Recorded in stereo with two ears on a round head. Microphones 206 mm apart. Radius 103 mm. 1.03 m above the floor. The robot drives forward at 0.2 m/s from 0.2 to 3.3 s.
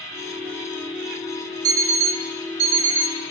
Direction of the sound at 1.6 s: 60° right (ahead or behind).